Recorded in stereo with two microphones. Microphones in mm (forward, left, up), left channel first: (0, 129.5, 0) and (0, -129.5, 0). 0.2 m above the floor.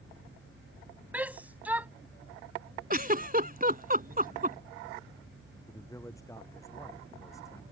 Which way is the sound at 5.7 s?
10° left (ahead or behind).